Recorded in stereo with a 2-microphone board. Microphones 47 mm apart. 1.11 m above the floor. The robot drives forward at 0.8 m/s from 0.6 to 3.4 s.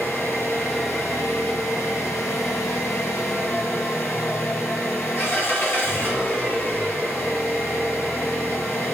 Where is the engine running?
50° left (ahead or behind), 2 m; by 8.9 s 55° left (ahead or behind), 1.9 m.